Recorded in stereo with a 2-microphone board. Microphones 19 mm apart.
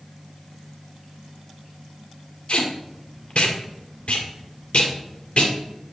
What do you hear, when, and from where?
2.5 s tape being pulled: 65° left (ahead or behind), 2 m